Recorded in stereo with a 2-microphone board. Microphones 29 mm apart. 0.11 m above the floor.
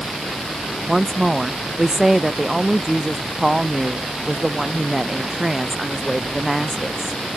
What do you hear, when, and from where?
0.9 s a woman speaking: 10° right (ahead or behind)